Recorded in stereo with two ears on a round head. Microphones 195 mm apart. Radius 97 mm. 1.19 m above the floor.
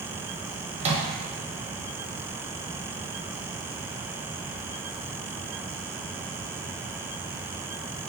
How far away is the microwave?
About 0.7 m.